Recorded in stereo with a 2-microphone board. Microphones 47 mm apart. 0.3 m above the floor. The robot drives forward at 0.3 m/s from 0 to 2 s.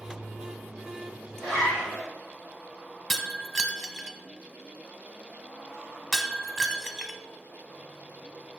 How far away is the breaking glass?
About 0.6 m.